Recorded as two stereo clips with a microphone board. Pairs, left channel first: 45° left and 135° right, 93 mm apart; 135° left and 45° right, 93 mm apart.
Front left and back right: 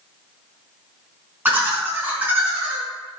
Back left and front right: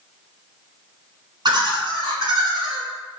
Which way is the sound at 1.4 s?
70° right.